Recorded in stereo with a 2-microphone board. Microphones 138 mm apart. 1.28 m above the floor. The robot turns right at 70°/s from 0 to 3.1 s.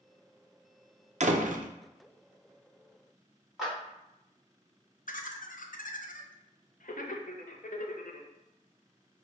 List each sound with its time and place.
1.2 s a door slam: 120° right, 0.5 m; by 1.7 s 85° right, 0.5 m
3.6 s a clap: centre (ahead or behind), 1.9 m
5.1 s laughter: 75° left (ahead or behind), 0.7 m